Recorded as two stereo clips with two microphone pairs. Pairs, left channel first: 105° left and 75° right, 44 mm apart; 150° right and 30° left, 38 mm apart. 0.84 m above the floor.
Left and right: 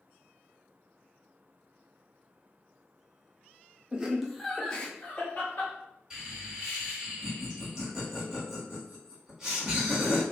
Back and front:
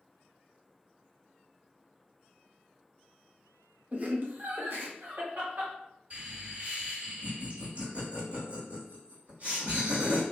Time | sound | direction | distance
3.9 | laughter | 15° right | 0.6 m
6.1 | laughter | 10° right | 1.6 m